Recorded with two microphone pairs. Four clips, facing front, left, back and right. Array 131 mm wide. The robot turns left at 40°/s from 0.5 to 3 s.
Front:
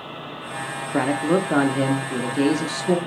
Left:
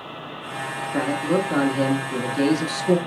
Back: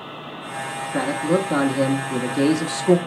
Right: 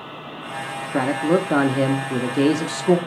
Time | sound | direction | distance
0.9 | a man speaking | 50° right | 0.9 m